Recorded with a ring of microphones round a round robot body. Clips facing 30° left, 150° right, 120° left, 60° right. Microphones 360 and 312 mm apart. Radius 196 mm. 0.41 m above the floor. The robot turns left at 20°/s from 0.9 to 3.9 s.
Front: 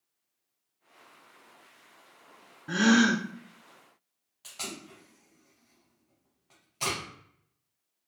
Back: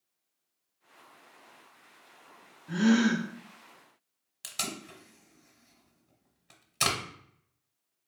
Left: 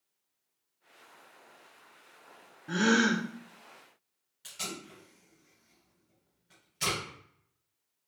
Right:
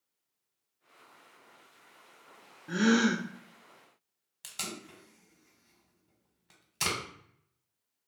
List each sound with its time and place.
2.7 s a gasp: 35° left, 0.5 m; by 3.2 s 25° left, 0.5 m
4.4 s tape being pulled: 95° right, 0.8 m